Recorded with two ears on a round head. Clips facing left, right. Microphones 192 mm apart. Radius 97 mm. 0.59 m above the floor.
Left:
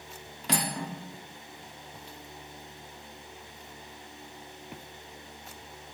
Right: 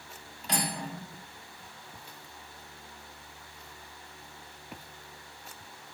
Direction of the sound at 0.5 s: 55° left (ahead or behind).